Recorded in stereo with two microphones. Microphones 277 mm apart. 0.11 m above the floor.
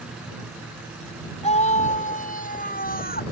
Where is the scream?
25° left (ahead or behind); by 3.2 s 35° left (ahead or behind).